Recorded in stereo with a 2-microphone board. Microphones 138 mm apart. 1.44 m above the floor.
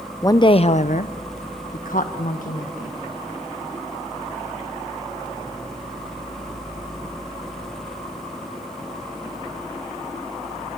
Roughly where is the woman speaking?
Left.